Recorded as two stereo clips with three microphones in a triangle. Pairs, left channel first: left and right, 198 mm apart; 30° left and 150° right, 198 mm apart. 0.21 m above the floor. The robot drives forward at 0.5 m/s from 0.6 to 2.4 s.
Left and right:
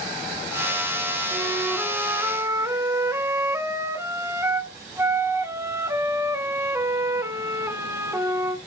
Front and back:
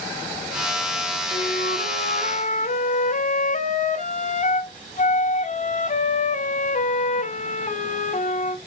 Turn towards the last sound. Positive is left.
turn(degrees=-15)